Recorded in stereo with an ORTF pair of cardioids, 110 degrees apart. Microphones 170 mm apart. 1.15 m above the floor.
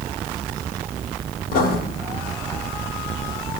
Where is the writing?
65° left, 1.7 m.